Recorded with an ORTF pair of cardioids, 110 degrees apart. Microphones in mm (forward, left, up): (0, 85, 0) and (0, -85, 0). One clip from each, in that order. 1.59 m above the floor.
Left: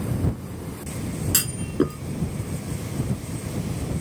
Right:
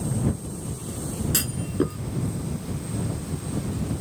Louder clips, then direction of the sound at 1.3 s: Left 3 dB; 20° left.